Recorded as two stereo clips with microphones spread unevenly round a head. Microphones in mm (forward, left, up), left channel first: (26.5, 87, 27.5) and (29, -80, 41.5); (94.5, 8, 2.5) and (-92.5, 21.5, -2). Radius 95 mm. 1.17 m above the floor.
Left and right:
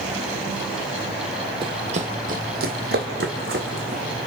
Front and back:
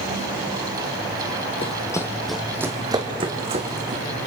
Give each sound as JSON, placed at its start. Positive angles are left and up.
{"t": 1.6, "sound": "running footsteps", "azimuth_deg": -50, "distance_m": 1.5}